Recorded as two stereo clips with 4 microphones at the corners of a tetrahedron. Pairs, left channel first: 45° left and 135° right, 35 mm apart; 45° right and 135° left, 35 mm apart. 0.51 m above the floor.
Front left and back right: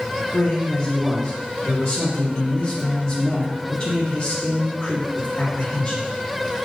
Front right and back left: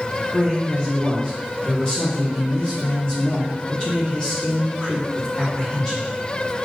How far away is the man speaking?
About 1.1 m.